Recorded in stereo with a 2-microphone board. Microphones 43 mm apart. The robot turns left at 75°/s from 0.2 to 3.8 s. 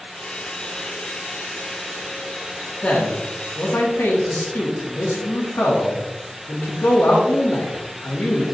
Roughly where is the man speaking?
Behind left.